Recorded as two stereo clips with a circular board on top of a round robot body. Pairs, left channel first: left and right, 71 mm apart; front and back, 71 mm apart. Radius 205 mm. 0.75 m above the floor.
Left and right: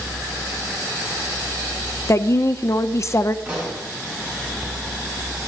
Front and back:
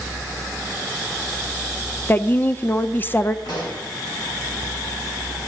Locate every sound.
2.1 s a woman speaking: 55° left, 0.9 m
3.5 s a pop: 20° right, 4 m